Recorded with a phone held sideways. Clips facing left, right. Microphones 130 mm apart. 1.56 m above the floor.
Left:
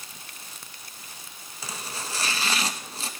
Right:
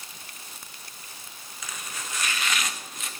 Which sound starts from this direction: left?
Chopping, at 1.6 s.